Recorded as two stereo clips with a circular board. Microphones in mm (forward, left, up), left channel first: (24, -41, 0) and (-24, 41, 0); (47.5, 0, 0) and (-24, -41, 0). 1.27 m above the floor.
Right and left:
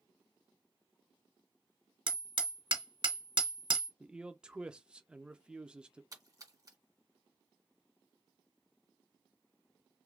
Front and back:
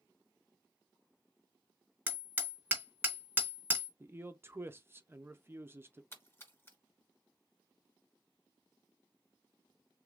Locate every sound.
2.1 s hammering: 145° left, 1.4 m
4.0 s a man speaking: 170° right, 0.5 m
6.1 s a splash: 80° left, 1.7 m